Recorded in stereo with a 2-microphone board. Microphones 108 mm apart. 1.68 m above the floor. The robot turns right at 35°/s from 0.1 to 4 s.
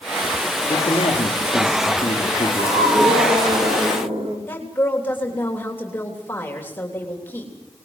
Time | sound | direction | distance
0.7 | a man speaking | 60° left | 4 m
2.5 | a scream | 110° right | 4 m
4.5 | a woman speaking | 20° left (ahead or behind) | 3.5 m